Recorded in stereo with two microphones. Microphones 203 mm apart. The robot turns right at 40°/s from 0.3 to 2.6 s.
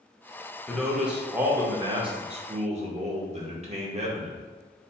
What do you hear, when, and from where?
0.7 s a man speaking: 170° left, 0.8 m; by 4.4 s 110° right, 0.8 m